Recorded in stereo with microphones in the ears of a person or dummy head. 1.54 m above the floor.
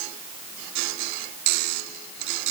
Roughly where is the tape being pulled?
I don't hear tape being pulled.